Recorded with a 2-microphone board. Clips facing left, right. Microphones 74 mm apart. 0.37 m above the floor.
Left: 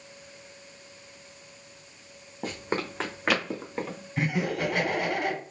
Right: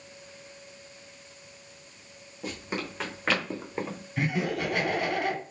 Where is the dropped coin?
I don't hear a dropped coin.